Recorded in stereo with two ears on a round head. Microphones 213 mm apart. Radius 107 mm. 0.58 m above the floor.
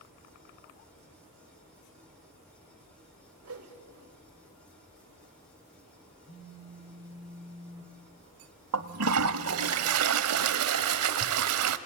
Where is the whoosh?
70° right (ahead or behind), 2.5 m.